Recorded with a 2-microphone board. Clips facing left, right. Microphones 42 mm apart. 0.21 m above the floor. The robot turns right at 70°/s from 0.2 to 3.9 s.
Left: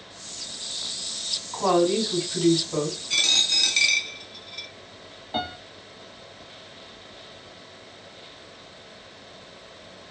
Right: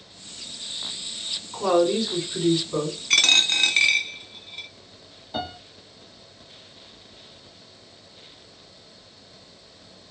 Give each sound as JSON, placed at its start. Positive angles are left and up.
{"t": 1.5, "sound": "a woman speaking", "azimuth_deg": 50, "distance_m": 1.9}
{"t": 3.1, "sound": "a dropped coin", "side_deg": -65, "distance_m": 0.5}
{"t": 5.3, "sound": "a piano", "side_deg": 30, "distance_m": 1.2}